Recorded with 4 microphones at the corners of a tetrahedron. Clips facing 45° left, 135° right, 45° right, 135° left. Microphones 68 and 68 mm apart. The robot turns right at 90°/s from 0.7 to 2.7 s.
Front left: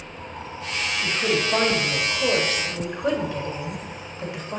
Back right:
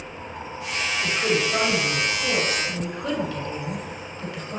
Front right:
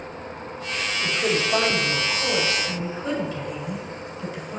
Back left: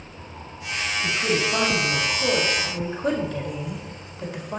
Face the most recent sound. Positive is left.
turn(degrees=115)